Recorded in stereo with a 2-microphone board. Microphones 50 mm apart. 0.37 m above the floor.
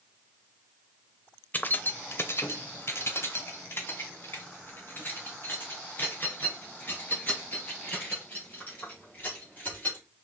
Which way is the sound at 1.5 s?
35° left (ahead or behind).